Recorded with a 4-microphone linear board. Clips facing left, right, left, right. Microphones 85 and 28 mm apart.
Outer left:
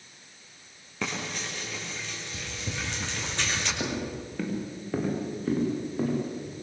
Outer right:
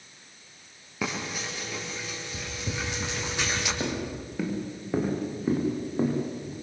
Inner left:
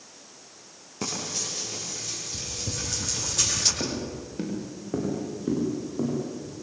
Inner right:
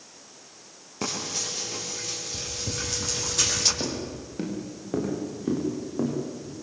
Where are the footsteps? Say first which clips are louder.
Outer right 1 dB, even; centre (ahead or behind), 5.5 m; by 6.5 s 15° right (ahead or behind), 8.5 m.